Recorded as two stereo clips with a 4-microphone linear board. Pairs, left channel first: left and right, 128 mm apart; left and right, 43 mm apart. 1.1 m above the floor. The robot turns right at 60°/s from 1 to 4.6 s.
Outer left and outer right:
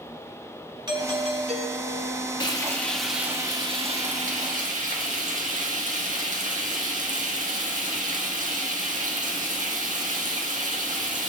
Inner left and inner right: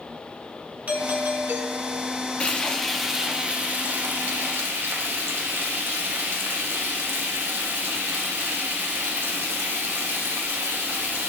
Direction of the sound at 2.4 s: 140° left.